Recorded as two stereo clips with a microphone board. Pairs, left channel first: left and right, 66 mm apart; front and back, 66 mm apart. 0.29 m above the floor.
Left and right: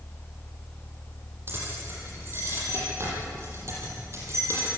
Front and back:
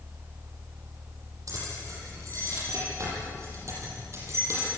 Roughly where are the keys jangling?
Behind right.